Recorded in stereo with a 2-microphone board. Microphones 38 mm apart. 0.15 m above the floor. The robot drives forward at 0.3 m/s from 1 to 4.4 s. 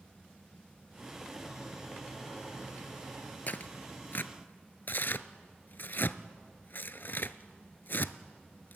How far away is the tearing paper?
About 0.7 m.